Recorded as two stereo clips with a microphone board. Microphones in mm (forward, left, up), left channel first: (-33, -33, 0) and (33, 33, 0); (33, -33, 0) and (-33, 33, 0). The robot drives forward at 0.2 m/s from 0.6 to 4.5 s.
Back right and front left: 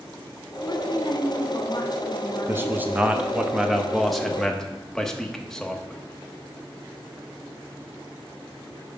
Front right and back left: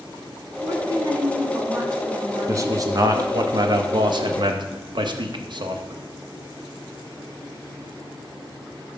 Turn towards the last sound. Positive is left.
turn(degrees=140)